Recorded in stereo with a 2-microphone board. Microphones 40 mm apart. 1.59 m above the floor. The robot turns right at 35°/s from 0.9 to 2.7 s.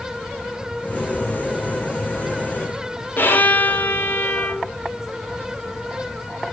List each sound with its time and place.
3.2 s a violin: 50° left (ahead or behind), 1.0 m